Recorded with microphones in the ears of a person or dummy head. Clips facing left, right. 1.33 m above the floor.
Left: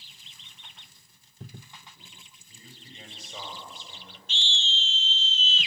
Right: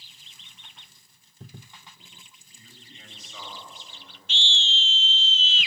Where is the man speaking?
35° left (ahead or behind), 7.5 m.